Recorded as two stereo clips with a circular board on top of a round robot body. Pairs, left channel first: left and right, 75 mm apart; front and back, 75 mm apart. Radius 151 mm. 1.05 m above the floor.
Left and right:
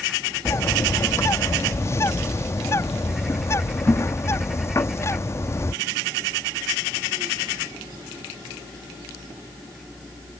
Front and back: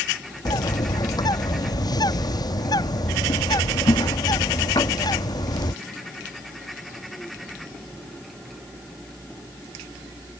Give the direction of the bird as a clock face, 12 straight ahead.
11 o'clock.